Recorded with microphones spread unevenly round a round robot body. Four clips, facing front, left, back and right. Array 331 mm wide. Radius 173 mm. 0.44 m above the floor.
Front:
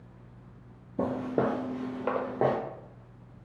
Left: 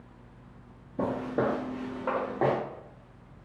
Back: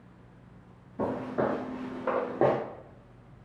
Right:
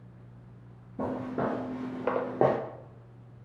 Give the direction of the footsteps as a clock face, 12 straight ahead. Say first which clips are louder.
Left 3 dB, front 1 dB; 11 o'clock.